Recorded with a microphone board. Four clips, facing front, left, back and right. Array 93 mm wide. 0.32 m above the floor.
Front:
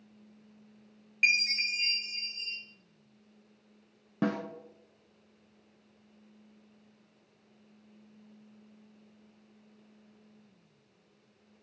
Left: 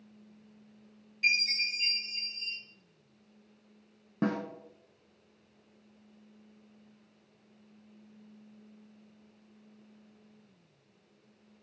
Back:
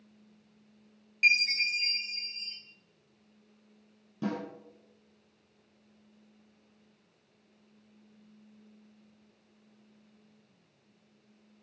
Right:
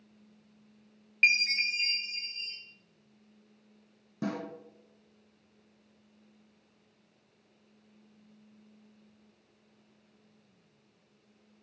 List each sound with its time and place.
1.2 s a chime: 65° right, 2.5 m
4.2 s a snare drum: 35° left, 1.5 m